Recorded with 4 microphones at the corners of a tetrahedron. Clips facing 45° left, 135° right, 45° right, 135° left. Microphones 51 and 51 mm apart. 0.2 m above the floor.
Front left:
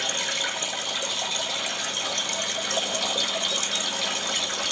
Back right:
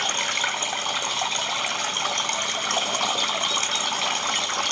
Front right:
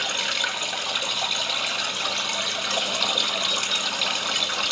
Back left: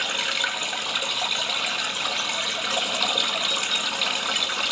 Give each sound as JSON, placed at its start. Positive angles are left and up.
{"t": 0.0, "sound": "running water", "azimuth_deg": -140, "distance_m": 1.4}